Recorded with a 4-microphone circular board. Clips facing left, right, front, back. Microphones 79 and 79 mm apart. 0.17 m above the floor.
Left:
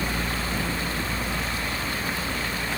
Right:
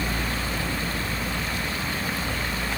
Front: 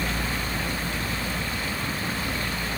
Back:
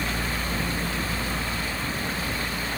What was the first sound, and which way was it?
Only background noise.